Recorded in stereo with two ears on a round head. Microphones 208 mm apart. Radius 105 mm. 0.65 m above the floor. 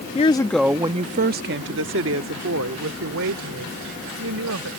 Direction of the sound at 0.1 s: 30° left (ahead or behind).